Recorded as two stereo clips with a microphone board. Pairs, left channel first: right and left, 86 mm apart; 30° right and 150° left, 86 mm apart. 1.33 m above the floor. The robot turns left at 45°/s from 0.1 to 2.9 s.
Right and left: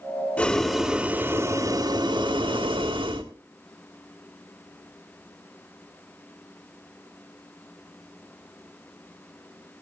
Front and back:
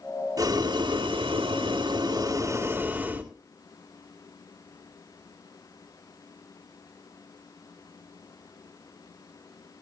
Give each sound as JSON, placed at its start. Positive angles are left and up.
{"t": 0.4, "sound": "boiling", "azimuth_deg": -160, "distance_m": 2.5}